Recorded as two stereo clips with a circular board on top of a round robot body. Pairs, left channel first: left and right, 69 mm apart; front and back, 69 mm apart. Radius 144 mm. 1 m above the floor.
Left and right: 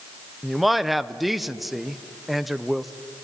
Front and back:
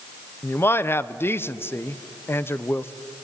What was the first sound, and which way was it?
A man speaking, straight ahead.